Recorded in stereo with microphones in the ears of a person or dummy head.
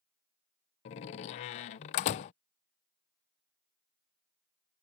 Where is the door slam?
35° left (ahead or behind).